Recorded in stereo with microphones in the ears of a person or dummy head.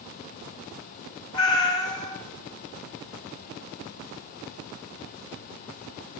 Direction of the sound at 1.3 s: 25° left (ahead or behind).